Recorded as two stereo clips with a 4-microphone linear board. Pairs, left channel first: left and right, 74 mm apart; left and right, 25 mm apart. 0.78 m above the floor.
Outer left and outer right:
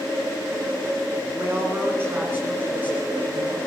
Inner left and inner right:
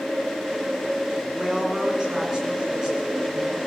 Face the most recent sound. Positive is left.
turn(degrees=-20)  # may be behind; listen again after turning